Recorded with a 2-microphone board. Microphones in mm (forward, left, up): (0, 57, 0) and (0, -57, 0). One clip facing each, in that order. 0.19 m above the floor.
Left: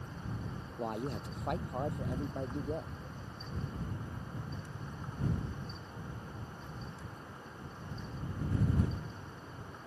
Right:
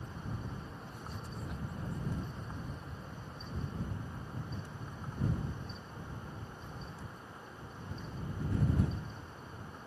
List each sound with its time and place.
0.8 s a man speaking: 80° left